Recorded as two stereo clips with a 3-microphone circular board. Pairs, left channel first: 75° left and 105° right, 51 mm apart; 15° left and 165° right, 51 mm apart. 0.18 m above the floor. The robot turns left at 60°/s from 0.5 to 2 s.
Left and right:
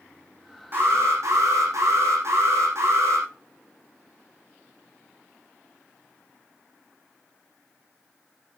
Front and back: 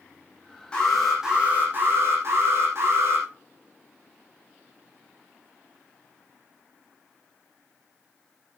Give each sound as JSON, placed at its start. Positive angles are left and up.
{"t": 0.7, "sound": "an alarm", "azimuth_deg": -55, "distance_m": 8.5}